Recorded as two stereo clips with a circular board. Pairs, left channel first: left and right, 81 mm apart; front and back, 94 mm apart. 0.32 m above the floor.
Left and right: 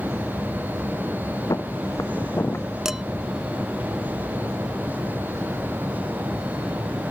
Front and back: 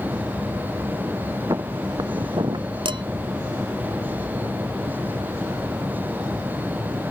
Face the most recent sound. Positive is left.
turn(degrees=-170)